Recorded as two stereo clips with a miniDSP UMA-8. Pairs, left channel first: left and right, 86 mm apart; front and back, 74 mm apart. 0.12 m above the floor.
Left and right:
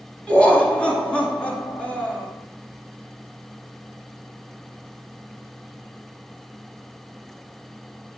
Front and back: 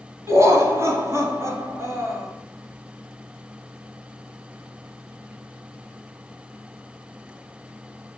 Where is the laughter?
160° left, 1.4 m.